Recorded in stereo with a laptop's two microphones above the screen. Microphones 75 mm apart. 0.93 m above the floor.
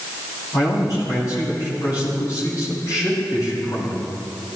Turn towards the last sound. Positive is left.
turn(degrees=45)  # may be behind; listen again after turning